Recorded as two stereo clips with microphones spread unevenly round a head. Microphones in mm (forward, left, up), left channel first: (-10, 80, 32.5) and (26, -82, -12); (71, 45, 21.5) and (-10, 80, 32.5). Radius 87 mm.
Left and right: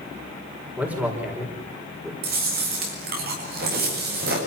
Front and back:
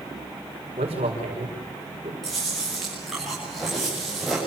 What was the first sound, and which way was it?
A man speaking, 160° right.